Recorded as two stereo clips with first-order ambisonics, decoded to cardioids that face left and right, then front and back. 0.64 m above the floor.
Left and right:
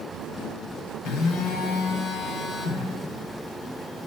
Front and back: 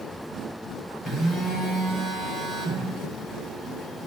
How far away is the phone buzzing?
About 2 m.